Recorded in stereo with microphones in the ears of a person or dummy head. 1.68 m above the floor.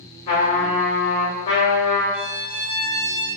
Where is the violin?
85° right, 1.0 m.